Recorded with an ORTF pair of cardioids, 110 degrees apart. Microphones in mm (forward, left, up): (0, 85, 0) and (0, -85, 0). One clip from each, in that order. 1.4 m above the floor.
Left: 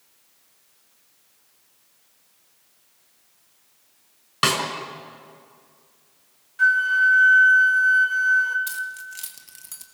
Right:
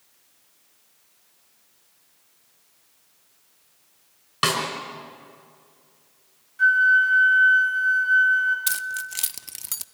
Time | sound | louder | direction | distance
4.4 | a snare drum | left 2 dB | 10° left | 5 m
6.6 | a flute | right 1 dB | 30° left | 2.5 m
8.7 | keys jangling | right 3 dB | 45° right | 0.7 m